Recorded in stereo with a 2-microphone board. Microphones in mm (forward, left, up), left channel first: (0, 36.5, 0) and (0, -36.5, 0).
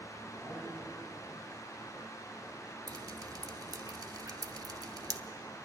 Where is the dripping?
55° right (ahead or behind), 0.8 m.